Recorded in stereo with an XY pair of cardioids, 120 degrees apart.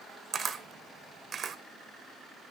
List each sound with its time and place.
0.3 s a camera shutter: 35° right, 0.8 m